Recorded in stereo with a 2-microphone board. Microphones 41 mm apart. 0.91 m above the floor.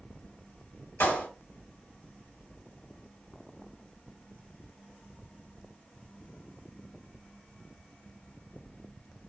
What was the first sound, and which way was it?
A clap, 75° left (ahead or behind).